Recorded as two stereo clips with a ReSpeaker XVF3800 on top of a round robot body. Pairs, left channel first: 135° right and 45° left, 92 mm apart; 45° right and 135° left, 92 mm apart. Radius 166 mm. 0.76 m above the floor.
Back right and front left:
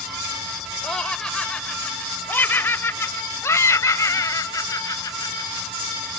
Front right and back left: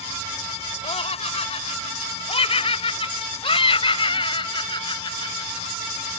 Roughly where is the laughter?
Ahead right.